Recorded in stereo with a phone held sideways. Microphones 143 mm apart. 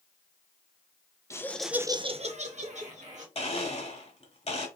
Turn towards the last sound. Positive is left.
turn(degrees=50)  # may be behind; listen again after turning